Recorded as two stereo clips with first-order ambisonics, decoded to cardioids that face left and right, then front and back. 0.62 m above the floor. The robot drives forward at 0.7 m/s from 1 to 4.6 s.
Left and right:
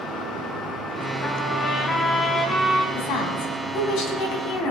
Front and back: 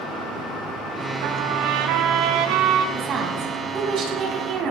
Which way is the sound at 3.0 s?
120° left.